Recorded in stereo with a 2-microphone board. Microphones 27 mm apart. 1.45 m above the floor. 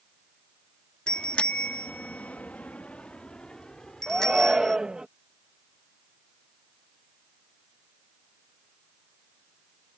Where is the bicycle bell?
30° left (ahead or behind); by 4.8 s 20° left (ahead or behind).